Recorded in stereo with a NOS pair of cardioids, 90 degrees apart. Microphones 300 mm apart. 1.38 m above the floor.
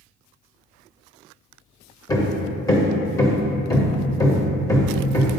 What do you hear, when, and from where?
2.1 s hammering: 10° left, 1.2 m